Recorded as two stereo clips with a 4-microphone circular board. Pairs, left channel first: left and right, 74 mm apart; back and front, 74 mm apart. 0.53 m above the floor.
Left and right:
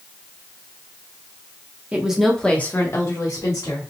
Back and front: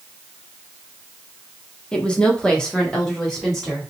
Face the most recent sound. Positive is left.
turn(degrees=95)